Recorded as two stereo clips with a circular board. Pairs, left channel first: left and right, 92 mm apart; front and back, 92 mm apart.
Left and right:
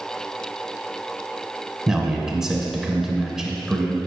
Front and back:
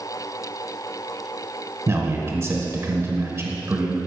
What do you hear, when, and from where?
1.9 s a man speaking: 170° right, 1.1 m